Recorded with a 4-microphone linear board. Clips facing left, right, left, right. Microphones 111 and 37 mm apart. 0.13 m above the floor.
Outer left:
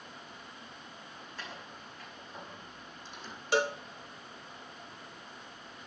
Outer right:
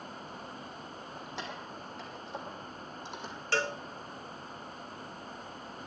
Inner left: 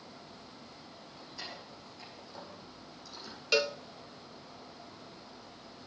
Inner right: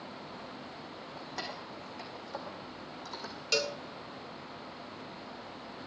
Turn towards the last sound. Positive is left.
turn(degrees=15)  # may be behind; listen again after turning